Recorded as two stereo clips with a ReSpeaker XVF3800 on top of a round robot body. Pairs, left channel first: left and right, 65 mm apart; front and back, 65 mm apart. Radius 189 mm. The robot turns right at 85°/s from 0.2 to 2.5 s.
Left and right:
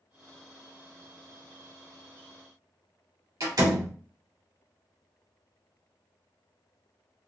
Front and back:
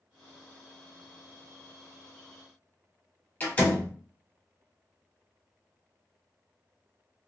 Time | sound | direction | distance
3.4 | a door slam | 70° right | 2 m